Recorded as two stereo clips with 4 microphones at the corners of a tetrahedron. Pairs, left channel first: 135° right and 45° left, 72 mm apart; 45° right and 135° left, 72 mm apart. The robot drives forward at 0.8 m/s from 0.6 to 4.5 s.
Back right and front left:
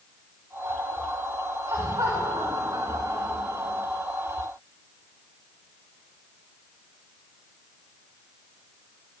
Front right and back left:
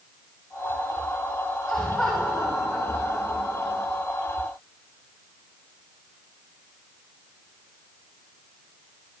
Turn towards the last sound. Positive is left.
turn(degrees=50)